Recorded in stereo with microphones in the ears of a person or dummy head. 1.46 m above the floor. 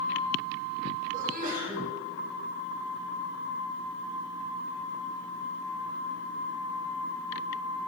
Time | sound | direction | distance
1.1 | a sneeze | 50° right (ahead or behind) | 3 m